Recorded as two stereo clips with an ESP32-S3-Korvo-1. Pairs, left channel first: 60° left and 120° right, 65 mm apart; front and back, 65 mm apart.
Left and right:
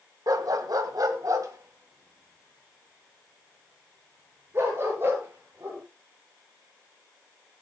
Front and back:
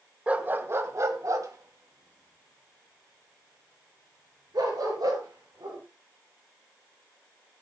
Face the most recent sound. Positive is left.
turn(degrees=-175)